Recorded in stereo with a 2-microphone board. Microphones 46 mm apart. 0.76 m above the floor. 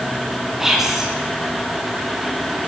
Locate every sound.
0.6 s whispering: 10° right (ahead or behind), 1.0 m